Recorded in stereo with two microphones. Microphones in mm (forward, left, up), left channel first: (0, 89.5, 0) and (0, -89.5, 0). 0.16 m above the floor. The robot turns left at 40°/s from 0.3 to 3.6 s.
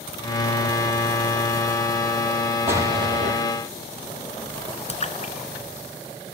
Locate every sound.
2.7 s an explosion: 15° right (ahead or behind), 5.5 m; by 3.3 s 40° right (ahead or behind), 5.5 m
4.9 s a splash: 40° left (ahead or behind), 1.4 m